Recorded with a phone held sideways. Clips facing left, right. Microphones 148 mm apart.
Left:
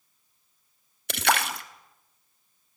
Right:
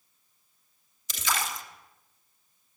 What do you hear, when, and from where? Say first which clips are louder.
1.1 s a splash: left 7 dB; 70° left (ahead or behind), 1.2 m